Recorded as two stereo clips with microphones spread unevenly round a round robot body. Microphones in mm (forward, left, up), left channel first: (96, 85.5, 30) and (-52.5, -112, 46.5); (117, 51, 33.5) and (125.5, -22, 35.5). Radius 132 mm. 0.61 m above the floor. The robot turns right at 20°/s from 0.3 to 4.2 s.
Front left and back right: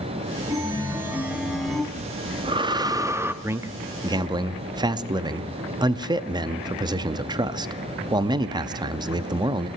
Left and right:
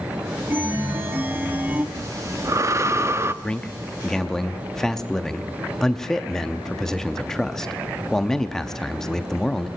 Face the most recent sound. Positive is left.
turn(degrees=170)